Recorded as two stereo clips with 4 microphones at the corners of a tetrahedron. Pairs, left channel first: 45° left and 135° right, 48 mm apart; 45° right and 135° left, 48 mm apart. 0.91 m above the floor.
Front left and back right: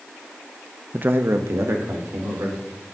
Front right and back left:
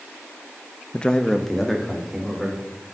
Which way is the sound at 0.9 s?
95° right.